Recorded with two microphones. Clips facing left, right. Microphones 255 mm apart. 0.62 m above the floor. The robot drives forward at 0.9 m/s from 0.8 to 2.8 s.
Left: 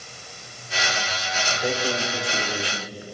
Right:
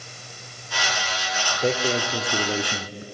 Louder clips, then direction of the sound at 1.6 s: Right 3 dB; 30° right (ahead or behind).